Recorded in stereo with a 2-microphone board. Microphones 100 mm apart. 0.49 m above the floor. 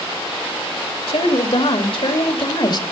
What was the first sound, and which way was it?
A woman speaking, 65° left (ahead or behind).